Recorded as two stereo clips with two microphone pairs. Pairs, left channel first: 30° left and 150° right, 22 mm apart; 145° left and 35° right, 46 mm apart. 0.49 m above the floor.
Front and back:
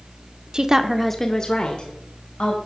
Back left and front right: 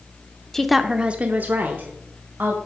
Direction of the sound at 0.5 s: 135° right.